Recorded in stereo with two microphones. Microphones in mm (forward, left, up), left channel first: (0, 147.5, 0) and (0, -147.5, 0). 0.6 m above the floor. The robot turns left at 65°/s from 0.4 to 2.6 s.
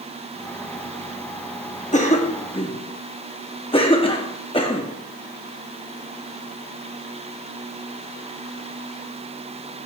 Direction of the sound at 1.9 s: 25° left (ahead or behind).